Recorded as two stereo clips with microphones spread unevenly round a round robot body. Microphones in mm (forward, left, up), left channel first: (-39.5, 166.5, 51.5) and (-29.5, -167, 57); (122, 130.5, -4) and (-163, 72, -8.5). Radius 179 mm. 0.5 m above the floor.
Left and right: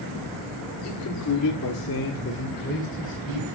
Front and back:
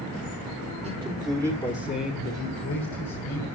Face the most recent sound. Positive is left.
turn(degrees=20)